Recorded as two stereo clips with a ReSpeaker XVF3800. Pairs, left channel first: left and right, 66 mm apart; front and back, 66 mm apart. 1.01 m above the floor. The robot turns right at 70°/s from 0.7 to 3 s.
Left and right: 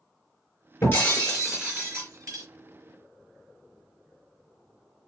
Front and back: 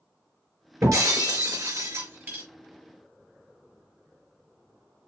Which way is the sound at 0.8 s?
140° left.